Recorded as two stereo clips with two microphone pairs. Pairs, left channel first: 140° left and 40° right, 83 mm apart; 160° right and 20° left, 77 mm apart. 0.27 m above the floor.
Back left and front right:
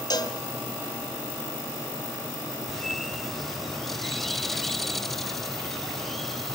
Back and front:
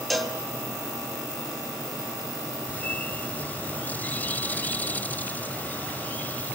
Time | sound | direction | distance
0.1 | a cowbell | 115° left | 2.5 m
2.7 | a bird | 140° right | 0.6 m